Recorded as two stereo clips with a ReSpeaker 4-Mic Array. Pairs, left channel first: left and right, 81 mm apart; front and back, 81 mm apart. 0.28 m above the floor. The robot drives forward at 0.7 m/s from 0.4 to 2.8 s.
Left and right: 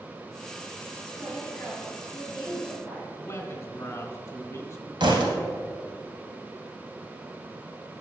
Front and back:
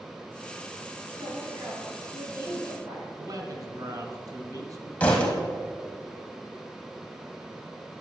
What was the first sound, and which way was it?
A woman speaking, 165° left.